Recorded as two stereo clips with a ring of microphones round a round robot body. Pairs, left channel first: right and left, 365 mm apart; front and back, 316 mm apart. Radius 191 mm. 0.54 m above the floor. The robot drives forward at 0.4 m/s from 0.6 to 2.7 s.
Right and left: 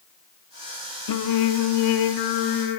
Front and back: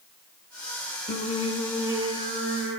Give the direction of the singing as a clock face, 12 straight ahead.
2 o'clock.